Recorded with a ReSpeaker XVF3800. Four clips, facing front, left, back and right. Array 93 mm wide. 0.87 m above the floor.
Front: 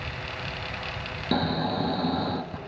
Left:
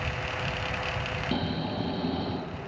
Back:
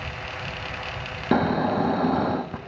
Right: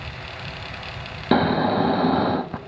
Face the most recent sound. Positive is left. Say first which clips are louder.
# right 15 dB, back 5 dB
turn(degrees=-115)